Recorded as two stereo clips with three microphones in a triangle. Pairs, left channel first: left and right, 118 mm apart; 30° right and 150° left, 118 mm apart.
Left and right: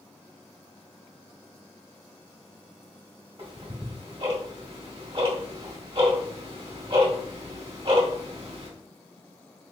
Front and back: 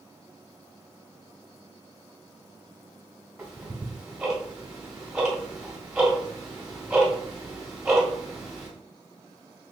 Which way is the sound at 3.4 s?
125° right.